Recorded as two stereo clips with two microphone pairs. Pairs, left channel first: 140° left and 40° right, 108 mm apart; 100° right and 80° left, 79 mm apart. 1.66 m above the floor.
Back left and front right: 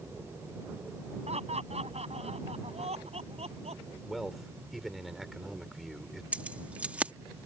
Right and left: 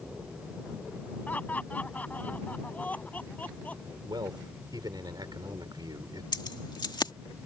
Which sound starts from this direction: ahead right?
Laughter, at 1.3 s.